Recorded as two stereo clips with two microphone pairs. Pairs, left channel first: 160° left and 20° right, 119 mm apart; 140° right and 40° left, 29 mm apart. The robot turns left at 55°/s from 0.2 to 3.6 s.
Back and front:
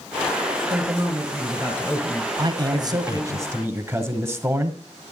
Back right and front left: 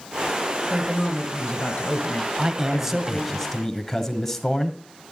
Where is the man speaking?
Straight ahead, 1.7 m; by 4.8 s 70° right, 1.7 m.